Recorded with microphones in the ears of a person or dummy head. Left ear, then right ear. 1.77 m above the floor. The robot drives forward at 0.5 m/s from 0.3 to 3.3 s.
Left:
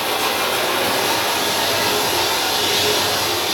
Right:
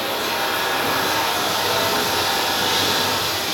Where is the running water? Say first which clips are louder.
Left 3 dB; 25° left (ahead or behind), 1.7 m; by 3.5 s 15° left (ahead or behind), 3 m.